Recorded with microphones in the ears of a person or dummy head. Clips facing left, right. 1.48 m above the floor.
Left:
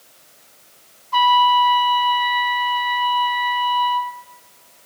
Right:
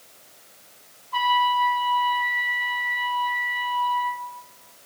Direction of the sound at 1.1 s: 70° left (ahead or behind).